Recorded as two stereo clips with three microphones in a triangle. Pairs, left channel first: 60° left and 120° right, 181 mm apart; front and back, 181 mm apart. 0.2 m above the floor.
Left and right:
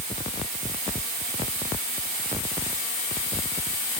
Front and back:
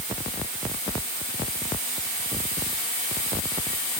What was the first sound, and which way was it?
Only background noise.